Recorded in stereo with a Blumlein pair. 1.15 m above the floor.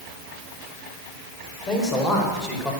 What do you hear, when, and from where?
1.7 s a man speaking: 25° left, 5.5 m; by 2.7 s 10° left, 5.5 m